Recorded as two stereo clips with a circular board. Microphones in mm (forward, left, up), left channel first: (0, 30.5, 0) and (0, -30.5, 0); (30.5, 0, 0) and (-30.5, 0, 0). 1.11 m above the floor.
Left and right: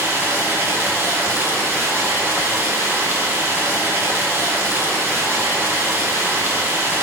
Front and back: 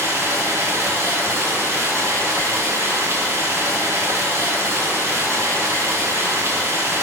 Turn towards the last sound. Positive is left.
turn(degrees=-135)